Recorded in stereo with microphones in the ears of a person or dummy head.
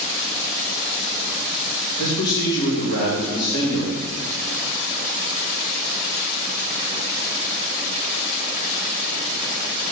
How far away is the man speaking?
About 3.5 m.